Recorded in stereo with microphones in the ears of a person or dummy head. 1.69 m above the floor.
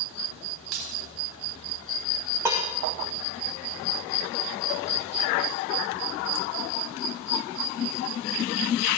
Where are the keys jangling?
80° right, 4.5 m.